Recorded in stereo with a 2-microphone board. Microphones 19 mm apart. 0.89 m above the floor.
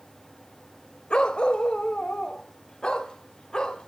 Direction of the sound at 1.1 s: 55° left (ahead or behind).